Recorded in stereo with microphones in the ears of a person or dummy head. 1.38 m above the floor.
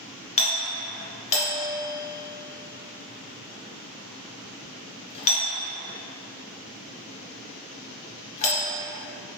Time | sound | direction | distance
0.4 | a doorbell | 35° left (ahead or behind) | 1.0 m